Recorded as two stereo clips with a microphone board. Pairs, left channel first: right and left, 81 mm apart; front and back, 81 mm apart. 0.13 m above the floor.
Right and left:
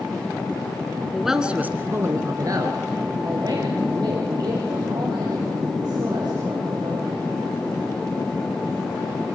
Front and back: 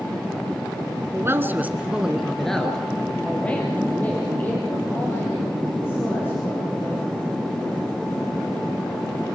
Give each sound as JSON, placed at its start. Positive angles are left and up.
{"t": 1.1, "sound": "a man speaking", "azimuth_deg": -175, "distance_m": 1.6}